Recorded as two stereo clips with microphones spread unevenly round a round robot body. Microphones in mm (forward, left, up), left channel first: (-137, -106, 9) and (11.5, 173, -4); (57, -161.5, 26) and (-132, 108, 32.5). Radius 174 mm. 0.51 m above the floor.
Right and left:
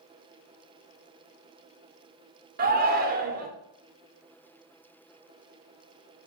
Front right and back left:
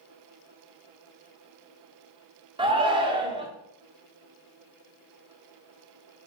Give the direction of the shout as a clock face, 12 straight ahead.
10 o'clock.